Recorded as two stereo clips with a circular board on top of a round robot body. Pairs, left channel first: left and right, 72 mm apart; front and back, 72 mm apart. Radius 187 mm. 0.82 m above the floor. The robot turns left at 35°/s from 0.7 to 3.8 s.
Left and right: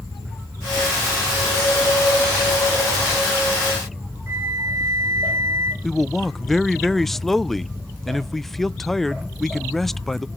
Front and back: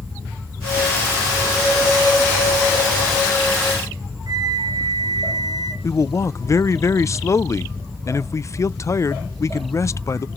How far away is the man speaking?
About 0.6 m.